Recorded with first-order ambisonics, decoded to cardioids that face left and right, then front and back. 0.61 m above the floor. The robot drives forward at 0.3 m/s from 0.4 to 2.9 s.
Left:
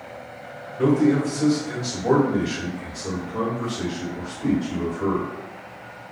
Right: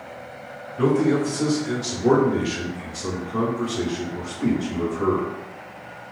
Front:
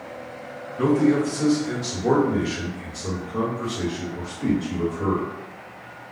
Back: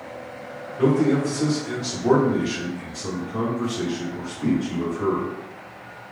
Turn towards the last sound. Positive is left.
turn(degrees=-95)